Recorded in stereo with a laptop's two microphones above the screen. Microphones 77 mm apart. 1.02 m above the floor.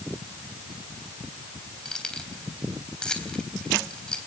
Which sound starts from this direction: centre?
Keys jangling, at 1.9 s.